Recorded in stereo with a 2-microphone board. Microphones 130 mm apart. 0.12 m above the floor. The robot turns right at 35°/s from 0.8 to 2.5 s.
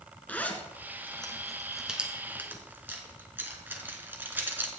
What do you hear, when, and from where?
0.3 s a zipper: 15° left (ahead or behind), 1.5 m; by 4.7 s 15° right (ahead or behind), 1.5 m